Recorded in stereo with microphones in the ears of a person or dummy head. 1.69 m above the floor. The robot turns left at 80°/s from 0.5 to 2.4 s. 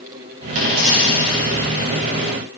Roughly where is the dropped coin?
Right.